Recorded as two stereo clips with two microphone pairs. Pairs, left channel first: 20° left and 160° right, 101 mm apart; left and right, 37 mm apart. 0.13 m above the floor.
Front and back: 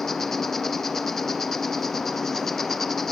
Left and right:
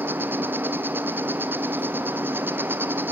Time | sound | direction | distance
0.0 | an insect | 65° right | 0.9 m